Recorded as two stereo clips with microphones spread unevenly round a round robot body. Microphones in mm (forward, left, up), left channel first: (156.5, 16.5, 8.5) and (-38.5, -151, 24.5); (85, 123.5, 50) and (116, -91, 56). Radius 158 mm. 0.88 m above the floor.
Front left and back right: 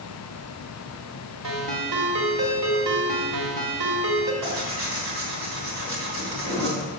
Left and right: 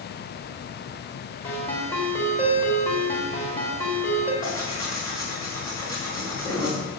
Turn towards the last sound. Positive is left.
turn(degrees=180)